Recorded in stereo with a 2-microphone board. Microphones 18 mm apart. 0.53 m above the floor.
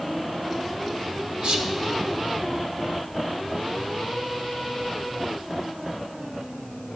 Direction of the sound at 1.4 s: 60° right (ahead or behind).